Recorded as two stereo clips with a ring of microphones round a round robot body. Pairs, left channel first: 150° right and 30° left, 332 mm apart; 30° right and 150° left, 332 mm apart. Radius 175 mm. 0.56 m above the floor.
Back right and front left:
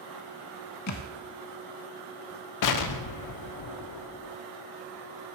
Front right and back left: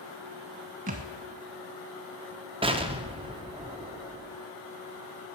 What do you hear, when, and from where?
0.9 s a thud: 155° right, 0.6 m
2.6 s an explosion: 140° right, 0.6 m